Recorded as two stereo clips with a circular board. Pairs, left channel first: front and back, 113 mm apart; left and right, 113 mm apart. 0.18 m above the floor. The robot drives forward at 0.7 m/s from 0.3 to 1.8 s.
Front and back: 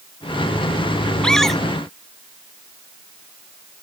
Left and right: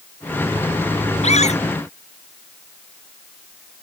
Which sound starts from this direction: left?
A scream, at 1.2 s.